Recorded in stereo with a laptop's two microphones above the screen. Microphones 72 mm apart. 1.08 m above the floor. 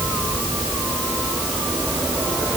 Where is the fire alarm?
I don't hear a fire alarm.